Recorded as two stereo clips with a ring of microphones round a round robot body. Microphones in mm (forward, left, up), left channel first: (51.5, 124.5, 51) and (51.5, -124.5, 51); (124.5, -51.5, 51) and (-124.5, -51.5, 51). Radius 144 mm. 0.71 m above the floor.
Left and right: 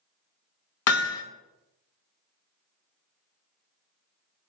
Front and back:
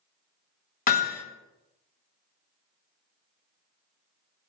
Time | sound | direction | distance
0.9 | hammering | 60° left | 1.4 m